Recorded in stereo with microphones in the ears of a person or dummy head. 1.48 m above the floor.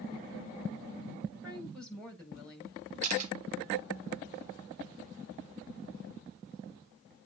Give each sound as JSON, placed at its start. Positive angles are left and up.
{"t": 1.4, "sound": "a woman speaking", "side_deg": 5, "distance_m": 6.5}
{"t": 3.0, "sound": "a camera shutter", "side_deg": -35, "distance_m": 2.0}